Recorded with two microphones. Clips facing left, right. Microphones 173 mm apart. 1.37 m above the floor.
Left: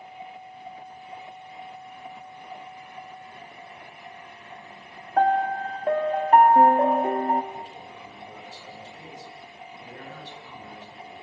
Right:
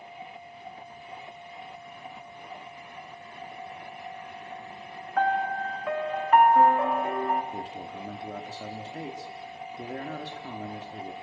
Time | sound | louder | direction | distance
5.2 | a piano | left 5 dB | 35° left (ahead or behind) | 1.5 m
7.5 | a man speaking | right 3 dB | 70° right (ahead or behind) | 4 m